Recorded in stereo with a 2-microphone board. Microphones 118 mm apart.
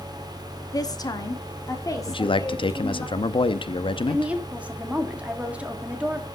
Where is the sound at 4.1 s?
10° right (ahead or behind), 1.6 m.